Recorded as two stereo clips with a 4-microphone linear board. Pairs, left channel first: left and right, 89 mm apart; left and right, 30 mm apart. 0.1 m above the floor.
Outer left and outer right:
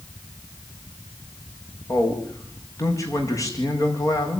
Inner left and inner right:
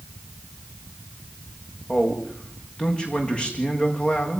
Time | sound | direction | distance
1.9 | a man speaking | 30° left (ahead or behind) | 7 m